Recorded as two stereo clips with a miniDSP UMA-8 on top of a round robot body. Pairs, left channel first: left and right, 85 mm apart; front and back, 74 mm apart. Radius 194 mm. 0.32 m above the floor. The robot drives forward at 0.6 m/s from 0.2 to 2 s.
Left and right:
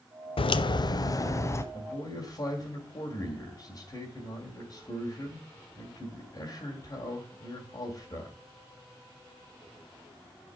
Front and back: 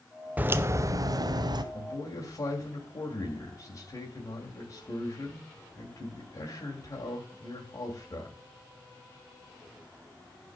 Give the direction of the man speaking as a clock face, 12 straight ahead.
11 o'clock.